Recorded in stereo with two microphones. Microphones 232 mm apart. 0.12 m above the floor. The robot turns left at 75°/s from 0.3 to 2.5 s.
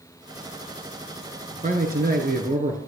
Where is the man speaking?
55° right, 1.4 m; by 2.8 s 120° right, 1.4 m.